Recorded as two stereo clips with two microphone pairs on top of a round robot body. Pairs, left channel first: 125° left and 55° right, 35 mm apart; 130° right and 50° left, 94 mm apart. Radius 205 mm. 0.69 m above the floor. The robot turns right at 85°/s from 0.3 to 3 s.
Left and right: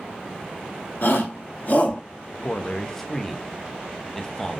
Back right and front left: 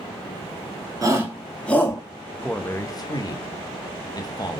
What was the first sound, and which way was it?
A shout, 100° left.